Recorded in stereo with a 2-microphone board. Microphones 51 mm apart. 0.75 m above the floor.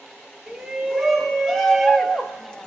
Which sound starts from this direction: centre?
A shout, at 0.5 s.